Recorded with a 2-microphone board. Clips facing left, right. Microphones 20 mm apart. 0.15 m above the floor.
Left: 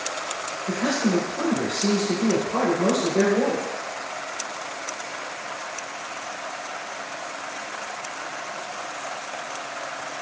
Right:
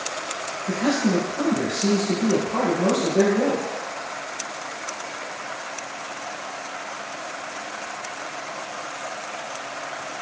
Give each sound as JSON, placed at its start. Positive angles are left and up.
{"t": 0.7, "sound": "a man speaking", "side_deg": 15, "distance_m": 1.4}